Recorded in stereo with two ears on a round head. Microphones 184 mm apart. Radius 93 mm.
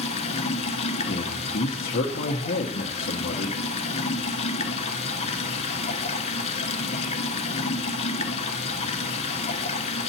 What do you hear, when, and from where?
0.0 s running water: 35° left (ahead or behind), 0.9 m
1.1 s a man speaking: 50° left (ahead or behind), 0.9 m